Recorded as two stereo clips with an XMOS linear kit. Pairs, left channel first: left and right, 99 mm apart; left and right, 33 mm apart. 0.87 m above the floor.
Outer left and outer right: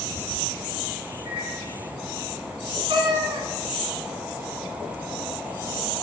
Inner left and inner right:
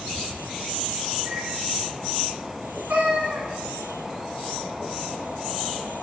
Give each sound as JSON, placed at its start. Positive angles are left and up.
{"t": 1.2, "sound": "a microwave", "side_deg": -45, "distance_m": 2.5}
{"t": 2.9, "sound": "a cat meowing", "side_deg": -60, "distance_m": 1.4}